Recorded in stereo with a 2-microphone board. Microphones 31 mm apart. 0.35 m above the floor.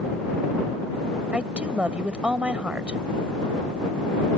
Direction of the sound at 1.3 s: 40° right (ahead or behind).